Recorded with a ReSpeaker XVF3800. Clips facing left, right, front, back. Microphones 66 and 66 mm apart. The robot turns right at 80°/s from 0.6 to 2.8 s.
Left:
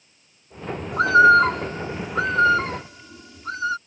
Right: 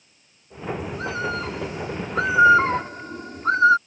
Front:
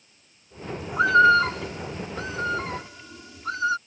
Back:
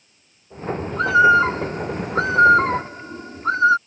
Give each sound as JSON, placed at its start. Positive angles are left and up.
{"t": 0.9, "sound": "a bird", "azimuth_deg": 75}